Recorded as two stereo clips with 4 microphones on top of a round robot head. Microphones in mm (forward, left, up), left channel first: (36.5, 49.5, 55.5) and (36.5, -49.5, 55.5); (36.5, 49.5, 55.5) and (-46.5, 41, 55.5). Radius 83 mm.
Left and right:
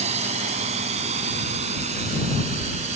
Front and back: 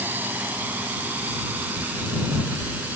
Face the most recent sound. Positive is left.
turn(degrees=-100)